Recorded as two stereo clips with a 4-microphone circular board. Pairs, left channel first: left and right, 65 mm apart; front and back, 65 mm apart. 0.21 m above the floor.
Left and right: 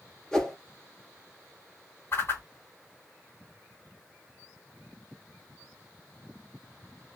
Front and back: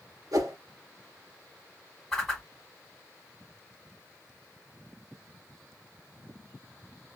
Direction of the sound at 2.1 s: 85° left.